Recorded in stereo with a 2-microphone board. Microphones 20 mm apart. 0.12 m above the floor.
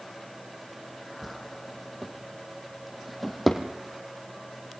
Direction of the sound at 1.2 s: Centre (ahead or behind).